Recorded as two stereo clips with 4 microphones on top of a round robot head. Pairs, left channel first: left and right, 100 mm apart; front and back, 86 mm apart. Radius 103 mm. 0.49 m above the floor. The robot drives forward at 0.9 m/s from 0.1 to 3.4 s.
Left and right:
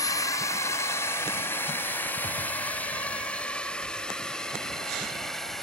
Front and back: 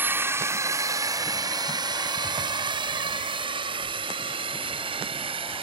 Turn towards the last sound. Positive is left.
turn(degrees=175)